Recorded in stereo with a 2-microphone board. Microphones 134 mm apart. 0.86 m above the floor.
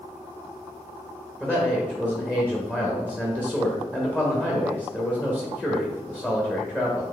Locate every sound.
1.4 s a man speaking: 10° left (ahead or behind), 0.8 m